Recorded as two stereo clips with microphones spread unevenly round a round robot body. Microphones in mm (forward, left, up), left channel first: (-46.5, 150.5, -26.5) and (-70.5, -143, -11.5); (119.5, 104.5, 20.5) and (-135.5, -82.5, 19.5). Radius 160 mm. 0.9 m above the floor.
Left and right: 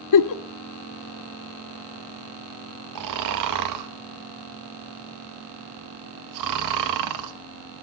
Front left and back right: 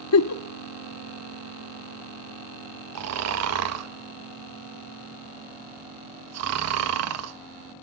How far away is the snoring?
About 1.1 m.